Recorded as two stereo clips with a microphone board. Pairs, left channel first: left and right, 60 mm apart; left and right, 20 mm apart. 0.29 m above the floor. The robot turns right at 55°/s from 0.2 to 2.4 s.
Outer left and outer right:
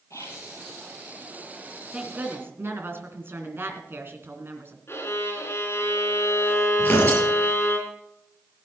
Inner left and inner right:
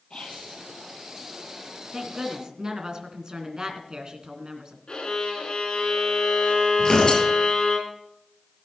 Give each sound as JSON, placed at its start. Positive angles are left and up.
{"t": 0.1, "sound": "whispering", "side_deg": 60, "distance_m": 7.5}
{"t": 1.9, "sound": "a woman speaking", "side_deg": -15, "distance_m": 3.0}
{"t": 4.9, "sound": "a violin", "side_deg": 45, "distance_m": 3.5}
{"t": 6.8, "sound": "tearing paper", "side_deg": 30, "distance_m": 7.5}